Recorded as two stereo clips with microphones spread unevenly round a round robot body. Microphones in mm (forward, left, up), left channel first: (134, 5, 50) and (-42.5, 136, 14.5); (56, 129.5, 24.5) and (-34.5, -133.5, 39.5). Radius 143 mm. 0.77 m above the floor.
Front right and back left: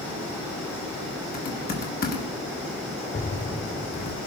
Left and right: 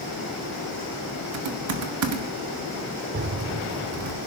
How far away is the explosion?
About 0.5 m.